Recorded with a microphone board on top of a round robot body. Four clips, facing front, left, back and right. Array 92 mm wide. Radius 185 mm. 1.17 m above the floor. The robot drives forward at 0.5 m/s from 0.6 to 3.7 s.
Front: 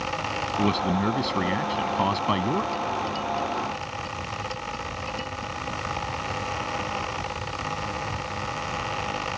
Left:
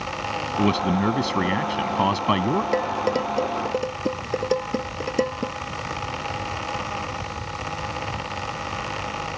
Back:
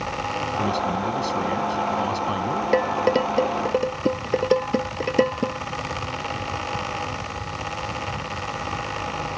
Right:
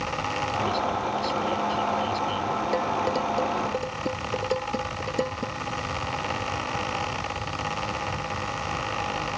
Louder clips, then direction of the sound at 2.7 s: Left 2 dB, back 8 dB; 165° left.